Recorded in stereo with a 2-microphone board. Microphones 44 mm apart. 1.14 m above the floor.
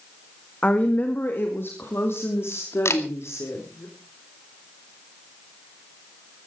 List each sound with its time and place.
0.6 s a woman speaking: 30° left (ahead or behind), 1.9 m; by 3.9 s 85° left, 4 m
2.9 s a camera shutter: 80° left, 2 m